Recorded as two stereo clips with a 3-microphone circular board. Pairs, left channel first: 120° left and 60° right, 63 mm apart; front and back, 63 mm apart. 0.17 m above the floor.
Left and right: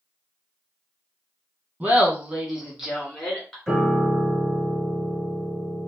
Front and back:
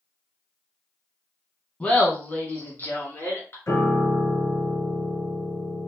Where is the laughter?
40° right, 1.1 m; by 3.6 s 40° left, 1.5 m.